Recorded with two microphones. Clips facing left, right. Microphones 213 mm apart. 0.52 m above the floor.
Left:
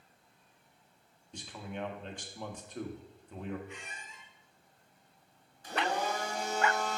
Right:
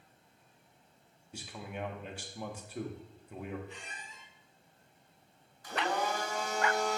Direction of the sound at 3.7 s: 35° right (ahead or behind).